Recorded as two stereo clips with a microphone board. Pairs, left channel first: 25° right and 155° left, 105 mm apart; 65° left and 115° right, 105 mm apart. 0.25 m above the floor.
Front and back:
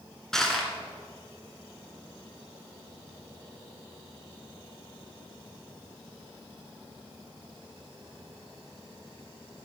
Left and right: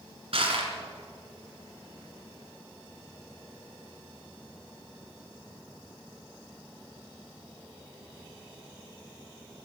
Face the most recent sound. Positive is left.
turn(degrees=-110)